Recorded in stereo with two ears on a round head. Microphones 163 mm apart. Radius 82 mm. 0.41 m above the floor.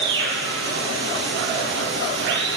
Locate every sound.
0.0 s running water: 75° right (ahead or behind), 4 m